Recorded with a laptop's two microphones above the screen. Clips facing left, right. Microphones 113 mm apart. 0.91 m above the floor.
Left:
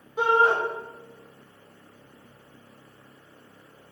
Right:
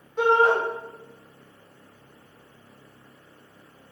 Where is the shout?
10° left (ahead or behind), 1.3 m.